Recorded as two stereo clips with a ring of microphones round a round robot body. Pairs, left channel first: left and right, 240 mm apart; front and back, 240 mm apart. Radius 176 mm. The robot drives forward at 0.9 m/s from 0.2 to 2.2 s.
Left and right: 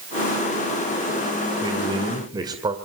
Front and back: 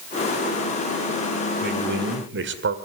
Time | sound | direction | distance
1.6 | a man speaking | 155° right | 1.8 m